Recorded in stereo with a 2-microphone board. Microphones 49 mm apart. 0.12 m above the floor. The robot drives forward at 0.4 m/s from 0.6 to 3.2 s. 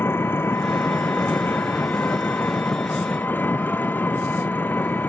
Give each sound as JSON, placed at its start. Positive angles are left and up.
{"t": 0.0, "sound": "an engine running", "side_deg": 50}